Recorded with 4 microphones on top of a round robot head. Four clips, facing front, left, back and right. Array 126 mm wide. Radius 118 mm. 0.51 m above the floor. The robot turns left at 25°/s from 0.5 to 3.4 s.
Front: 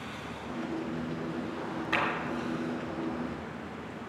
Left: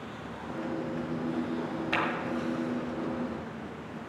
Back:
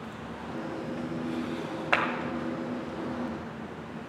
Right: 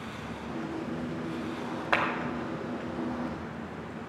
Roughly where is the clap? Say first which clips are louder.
Right 3 dB, back 3 dB; behind right.